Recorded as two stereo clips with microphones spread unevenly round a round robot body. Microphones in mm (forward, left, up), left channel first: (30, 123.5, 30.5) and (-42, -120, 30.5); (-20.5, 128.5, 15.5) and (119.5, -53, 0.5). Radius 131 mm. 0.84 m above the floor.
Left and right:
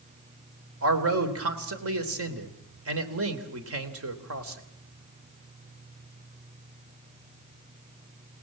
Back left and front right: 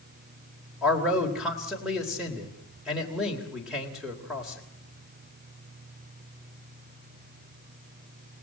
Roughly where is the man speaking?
Behind right.